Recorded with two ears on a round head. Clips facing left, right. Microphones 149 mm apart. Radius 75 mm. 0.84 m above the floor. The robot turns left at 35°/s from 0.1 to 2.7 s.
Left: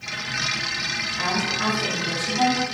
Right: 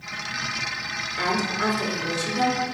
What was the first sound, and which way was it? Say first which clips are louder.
A woman speaking: right 1 dB; 95° right.